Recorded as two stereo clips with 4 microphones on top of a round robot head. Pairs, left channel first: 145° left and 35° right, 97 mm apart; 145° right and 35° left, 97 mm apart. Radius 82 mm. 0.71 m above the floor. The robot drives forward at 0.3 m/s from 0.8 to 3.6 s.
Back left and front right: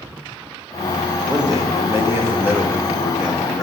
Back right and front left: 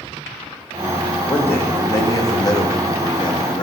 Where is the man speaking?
75° right, 1.0 m; by 3.6 s 125° right, 1.1 m.